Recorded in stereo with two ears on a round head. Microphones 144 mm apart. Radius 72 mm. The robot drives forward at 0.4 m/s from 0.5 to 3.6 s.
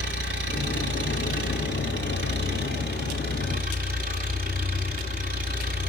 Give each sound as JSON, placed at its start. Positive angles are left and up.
{"t": 0.0, "sound": "an engine running", "side_deg": -75, "distance_m": 1.6}